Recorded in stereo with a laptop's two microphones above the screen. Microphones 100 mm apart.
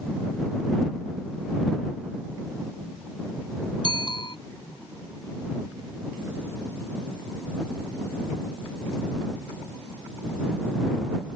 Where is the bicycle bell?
50° left (ahead or behind).